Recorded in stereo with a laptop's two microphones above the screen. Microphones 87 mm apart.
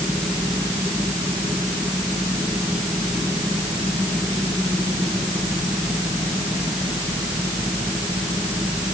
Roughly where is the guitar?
I don't hear a guitar.